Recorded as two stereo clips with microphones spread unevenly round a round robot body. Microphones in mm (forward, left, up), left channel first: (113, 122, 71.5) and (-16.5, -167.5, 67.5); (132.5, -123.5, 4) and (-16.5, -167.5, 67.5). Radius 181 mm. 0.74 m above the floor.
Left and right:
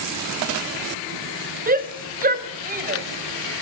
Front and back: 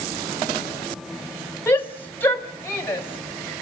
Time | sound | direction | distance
1.7 | a shout | 55° right | 4 m